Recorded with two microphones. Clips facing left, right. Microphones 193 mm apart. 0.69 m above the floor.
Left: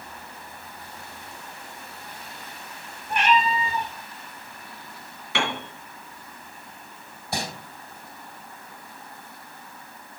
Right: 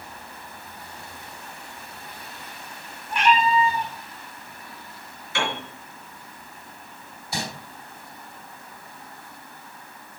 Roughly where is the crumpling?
Left.